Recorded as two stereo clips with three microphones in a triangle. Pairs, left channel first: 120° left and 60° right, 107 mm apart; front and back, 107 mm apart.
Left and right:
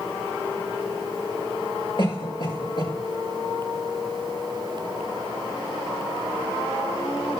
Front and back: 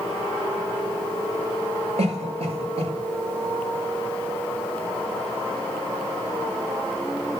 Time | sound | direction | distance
2.0 | a cough | 160° left | 6 m